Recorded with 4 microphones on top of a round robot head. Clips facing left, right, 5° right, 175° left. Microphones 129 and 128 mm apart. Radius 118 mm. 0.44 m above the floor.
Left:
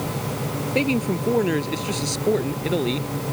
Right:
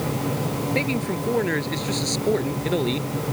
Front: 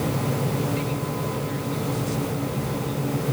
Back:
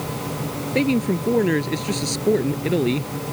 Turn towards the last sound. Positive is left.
turn(degrees=180)